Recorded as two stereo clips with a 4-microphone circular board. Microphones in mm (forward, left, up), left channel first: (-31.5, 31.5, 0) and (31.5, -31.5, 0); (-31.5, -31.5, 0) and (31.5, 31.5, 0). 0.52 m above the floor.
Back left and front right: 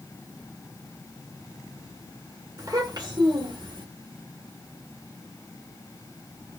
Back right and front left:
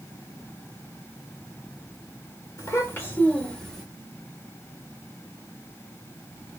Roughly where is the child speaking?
Right.